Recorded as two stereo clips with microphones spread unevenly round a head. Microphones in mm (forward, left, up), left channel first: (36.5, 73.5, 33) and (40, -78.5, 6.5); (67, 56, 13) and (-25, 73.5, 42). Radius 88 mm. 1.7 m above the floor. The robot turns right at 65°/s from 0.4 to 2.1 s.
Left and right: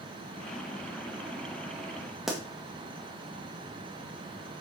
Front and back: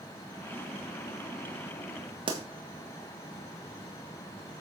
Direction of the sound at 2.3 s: 175° left.